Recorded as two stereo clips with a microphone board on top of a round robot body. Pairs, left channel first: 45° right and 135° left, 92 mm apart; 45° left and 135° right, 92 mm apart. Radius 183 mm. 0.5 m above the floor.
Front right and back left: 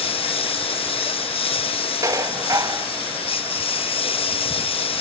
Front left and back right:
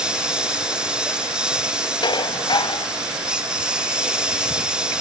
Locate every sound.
0.0 s a lawn mower: 55° right
2.0 s dishes clattering: 80° left